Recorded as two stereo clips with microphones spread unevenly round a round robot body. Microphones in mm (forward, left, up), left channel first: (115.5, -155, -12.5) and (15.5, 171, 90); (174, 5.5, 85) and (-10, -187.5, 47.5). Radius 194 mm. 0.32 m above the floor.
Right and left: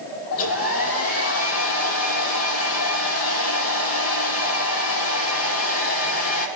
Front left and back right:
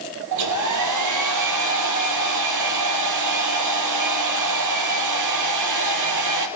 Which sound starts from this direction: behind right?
A hair dryer, at 0.3 s.